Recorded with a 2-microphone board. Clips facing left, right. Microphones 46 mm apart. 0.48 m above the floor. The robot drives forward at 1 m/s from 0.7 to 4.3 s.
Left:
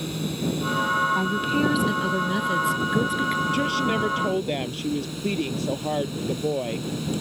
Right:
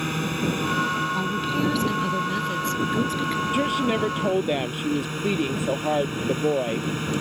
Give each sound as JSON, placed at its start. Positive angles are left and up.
{"t": 0.0, "sound": "a drone", "side_deg": -50}
{"t": 1.1, "sound": "a woman speaking", "side_deg": 10}
{"t": 3.5, "sound": "a woman speaking", "side_deg": -15}